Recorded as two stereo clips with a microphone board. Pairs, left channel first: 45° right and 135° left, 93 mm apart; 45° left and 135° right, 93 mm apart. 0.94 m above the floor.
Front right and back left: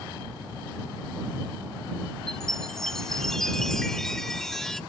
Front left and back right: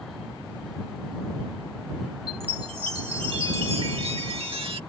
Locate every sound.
2.3 s a chime: 130° right